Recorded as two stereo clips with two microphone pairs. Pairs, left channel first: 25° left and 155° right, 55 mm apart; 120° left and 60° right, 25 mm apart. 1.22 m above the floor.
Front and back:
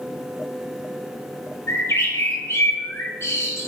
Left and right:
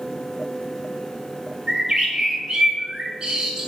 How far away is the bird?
About 4 m.